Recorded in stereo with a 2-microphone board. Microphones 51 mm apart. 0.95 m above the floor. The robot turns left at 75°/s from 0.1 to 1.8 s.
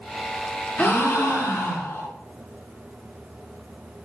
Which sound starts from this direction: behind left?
A gasp, at 0.8 s.